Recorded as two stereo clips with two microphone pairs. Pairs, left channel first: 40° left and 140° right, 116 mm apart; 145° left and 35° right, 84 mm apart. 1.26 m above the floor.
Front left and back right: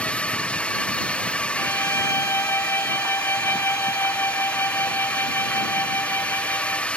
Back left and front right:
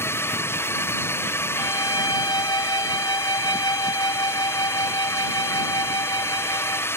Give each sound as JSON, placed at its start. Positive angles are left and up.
{"t": 0.0, "sound": "a drone", "azimuth_deg": 115}
{"t": 1.6, "sound": "a violin", "azimuth_deg": 105}